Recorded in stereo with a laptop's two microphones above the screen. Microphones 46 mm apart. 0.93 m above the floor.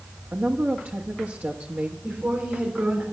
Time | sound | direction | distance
0.3 | a woman speaking | 45° right (ahead or behind) | 1.3 m
2.0 | a woman speaking | 40° right (ahead or behind) | 3.5 m